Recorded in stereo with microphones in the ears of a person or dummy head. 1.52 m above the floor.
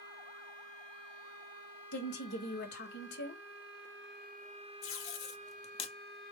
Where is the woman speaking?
55° left (ahead or behind), 0.8 m.